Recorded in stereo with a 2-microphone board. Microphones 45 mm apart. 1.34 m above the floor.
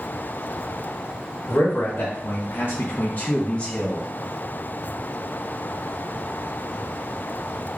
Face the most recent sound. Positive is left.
turn(degrees=15)  # may be behind; listen again after turning